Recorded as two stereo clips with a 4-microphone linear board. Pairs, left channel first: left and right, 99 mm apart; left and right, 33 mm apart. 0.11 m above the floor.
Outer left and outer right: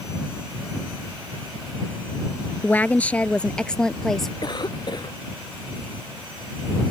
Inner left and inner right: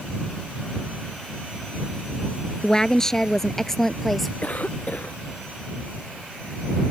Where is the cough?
45° left (ahead or behind).